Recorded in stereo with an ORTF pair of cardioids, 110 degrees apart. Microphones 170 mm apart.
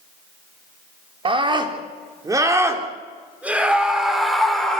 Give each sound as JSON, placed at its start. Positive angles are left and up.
{"t": 1.2, "sound": "a scream", "azimuth_deg": -30, "distance_m": 4.0}